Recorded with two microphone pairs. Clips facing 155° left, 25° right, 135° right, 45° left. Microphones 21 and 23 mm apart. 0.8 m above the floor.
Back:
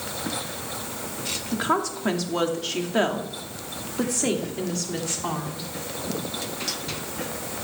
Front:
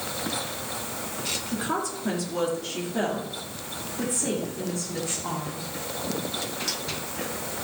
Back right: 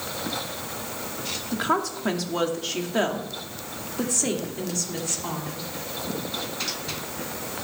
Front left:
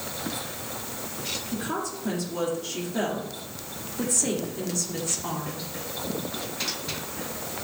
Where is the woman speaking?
150° right, 2 m; by 5.7 s 140° left, 2.5 m.